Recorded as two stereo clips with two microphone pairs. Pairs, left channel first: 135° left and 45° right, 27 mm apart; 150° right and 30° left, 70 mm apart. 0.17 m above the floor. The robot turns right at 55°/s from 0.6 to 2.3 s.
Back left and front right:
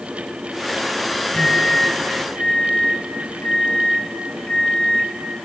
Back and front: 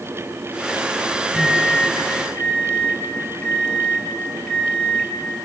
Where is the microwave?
90° left, 4 m; by 5.1 s 145° left, 4 m.